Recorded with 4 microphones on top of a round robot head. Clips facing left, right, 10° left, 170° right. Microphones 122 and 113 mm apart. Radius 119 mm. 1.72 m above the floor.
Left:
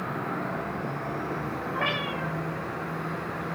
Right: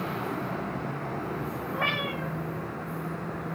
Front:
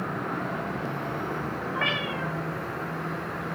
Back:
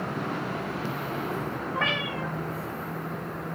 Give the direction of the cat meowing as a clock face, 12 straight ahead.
7 o'clock.